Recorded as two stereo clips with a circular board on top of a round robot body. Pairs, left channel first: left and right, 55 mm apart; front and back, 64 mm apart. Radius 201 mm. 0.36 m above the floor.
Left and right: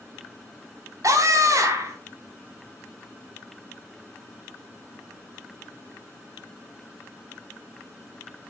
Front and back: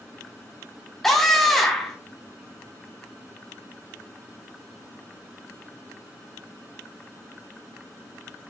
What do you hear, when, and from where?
1.0 s a scream: 90° right, 3.5 m